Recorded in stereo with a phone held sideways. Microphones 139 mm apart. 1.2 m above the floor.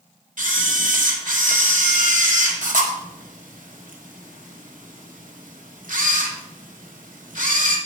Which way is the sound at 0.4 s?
70° right (ahead or behind).